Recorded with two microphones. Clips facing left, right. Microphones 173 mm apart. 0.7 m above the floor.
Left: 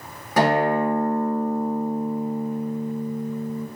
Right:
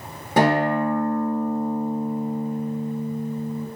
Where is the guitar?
30° right (ahead or behind), 1.5 m.